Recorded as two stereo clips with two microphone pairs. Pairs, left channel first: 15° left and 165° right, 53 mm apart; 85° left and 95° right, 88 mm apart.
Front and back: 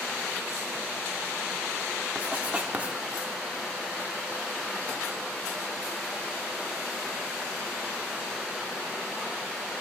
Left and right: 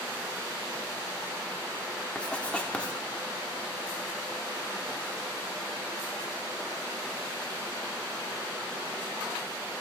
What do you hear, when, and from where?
2.1 s writing: 150° left, 0.8 m